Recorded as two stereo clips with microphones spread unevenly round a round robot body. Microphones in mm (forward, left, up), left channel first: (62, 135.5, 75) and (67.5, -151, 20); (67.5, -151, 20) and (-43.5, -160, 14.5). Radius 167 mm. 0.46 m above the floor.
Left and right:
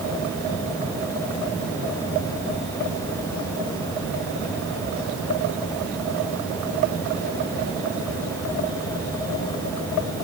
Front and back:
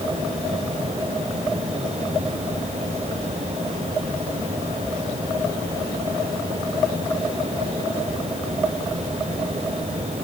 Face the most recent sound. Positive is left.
No sound to turn to.